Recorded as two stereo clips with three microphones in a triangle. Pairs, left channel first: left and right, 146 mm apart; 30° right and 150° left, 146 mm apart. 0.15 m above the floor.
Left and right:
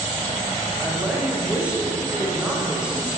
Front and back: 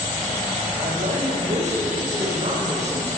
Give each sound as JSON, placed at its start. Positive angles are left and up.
{"t": 0.8, "sound": "a woman speaking", "azimuth_deg": -175, "distance_m": 7.5}